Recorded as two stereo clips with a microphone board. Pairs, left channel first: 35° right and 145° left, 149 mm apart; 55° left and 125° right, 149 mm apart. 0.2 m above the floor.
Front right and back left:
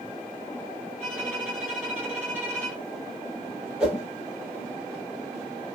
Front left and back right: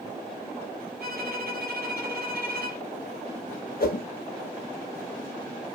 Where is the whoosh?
60° left, 0.8 m.